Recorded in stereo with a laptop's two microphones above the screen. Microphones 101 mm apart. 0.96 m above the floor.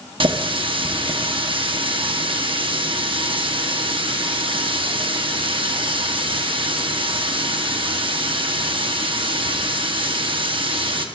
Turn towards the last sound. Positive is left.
turn(degrees=-55)  # may be behind; listen again after turning